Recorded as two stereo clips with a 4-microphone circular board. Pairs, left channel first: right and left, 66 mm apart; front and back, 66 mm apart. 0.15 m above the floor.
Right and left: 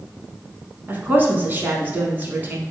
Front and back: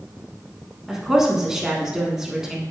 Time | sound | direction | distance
0.9 | a woman speaking | 105° left | 1.1 m